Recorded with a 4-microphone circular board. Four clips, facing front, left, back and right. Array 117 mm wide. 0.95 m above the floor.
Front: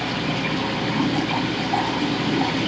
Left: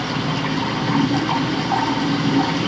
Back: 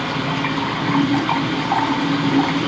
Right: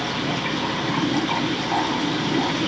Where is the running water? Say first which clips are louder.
Left 2 dB, back 3 dB; 155° left, 4.5 m.